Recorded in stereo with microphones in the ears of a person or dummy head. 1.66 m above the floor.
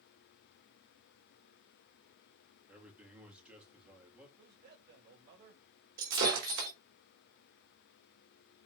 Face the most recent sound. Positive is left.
turn(degrees=-60)  # may be behind; listen again after turning